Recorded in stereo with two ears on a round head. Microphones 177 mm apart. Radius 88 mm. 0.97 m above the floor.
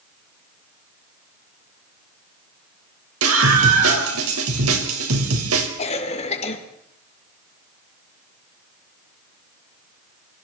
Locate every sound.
3.2 s a scream: 85° right, 5 m
5.8 s a cough: 35° left (ahead or behind), 2.5 m